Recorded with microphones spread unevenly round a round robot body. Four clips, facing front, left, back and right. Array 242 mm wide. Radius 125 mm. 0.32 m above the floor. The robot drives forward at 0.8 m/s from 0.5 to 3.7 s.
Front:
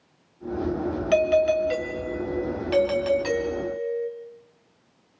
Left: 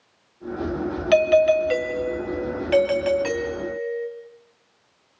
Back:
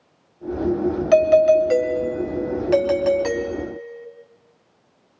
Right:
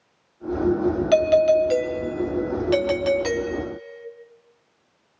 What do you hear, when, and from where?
1.1 s a doorbell: straight behind, 2.5 m